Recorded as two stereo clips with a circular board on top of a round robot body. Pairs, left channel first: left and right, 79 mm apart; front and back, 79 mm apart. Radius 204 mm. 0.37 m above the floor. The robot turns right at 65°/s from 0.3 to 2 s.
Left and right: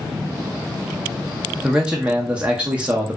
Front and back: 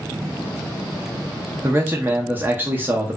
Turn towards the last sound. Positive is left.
turn(degrees=-150)